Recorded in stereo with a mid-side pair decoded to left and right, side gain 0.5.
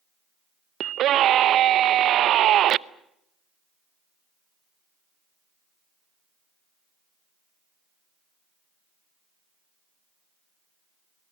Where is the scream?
60° right, 0.8 m.